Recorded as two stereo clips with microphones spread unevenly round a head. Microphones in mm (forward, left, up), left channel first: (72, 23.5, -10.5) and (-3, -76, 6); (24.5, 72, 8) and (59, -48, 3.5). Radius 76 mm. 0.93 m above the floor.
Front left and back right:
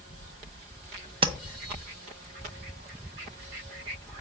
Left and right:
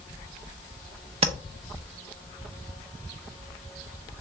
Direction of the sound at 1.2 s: 85° right.